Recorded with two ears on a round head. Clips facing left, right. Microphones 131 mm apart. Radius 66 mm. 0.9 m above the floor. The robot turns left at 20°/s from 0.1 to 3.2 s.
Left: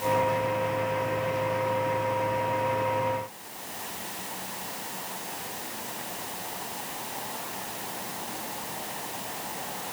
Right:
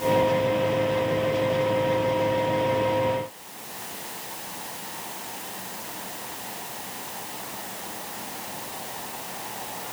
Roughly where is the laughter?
No laughter in this recording.